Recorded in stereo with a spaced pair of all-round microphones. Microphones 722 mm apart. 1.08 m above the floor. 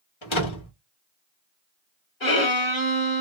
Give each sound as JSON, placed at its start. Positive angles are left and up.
{"t": 0.2, "sound": "a door slam", "side_deg": 40, "distance_m": 1.2}
{"t": 2.2, "sound": "a violin", "side_deg": 40, "distance_m": 1.3}